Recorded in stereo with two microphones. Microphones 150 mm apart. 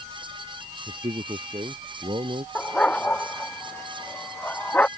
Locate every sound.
0.9 s a man speaking: 35° right (ahead or behind)
2.5 s a dog barking: 10° left (ahead or behind)